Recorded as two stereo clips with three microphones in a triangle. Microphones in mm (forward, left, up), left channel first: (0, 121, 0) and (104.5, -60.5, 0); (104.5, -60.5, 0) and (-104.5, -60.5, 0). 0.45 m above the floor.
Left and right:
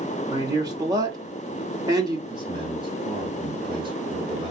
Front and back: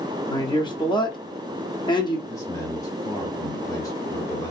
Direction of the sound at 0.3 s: 20° right.